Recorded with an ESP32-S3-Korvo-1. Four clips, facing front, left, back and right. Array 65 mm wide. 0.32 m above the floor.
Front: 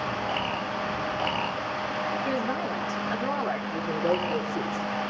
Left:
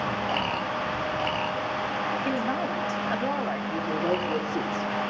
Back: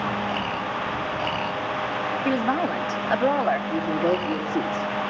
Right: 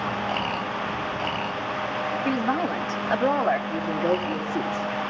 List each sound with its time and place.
2.2 s a woman speaking: 165° right, 1.9 m; by 3.6 s 140° right, 1.7 m
3.7 s a man speaking: 175° left, 6 m